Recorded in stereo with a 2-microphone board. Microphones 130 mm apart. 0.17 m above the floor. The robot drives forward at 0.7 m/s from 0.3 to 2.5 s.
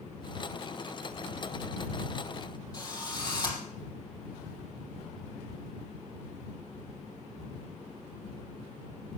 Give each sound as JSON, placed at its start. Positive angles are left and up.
{"t": 2.7, "sound": "a drill", "side_deg": 30, "distance_m": 5.0}